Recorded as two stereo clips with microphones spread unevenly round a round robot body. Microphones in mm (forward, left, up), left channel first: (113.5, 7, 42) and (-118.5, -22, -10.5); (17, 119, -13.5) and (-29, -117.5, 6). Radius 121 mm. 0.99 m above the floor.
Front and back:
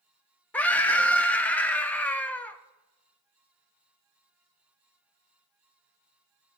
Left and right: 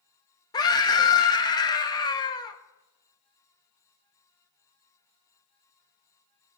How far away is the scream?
About 0.5 m.